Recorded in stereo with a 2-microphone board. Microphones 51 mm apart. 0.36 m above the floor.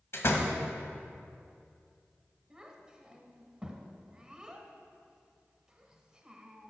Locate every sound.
0.1 s a door slam: 60° left (ahead or behind), 1.6 m
2.5 s a child speaking: 15° right (ahead or behind), 1.4 m